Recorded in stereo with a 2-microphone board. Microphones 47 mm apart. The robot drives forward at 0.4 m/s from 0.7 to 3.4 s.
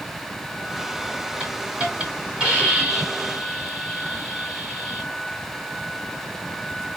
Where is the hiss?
25° right (ahead or behind), 1.9 m; by 5.1 s 20° right (ahead or behind), 2.5 m.